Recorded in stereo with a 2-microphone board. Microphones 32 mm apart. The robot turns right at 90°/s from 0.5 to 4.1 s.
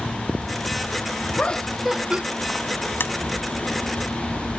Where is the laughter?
140° left; by 2.2 s 140° right.